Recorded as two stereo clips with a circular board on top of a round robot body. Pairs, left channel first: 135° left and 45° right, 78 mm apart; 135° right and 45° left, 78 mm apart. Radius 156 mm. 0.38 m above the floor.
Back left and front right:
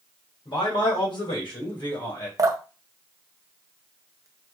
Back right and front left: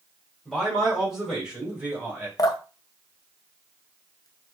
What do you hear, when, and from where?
0.5 s a man speaking: 140° left, 2.5 m; by 2.3 s 110° left, 2.5 m
2.4 s dripping: 95° right, 0.6 m